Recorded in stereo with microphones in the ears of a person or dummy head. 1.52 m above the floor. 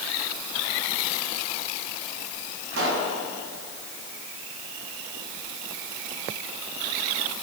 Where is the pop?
80° right, 7 m.